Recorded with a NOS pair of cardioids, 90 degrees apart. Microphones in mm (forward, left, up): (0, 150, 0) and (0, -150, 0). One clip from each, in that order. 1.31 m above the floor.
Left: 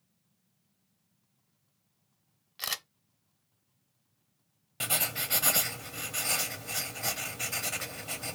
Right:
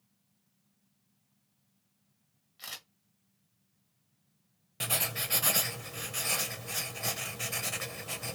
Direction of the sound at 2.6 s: 70° left.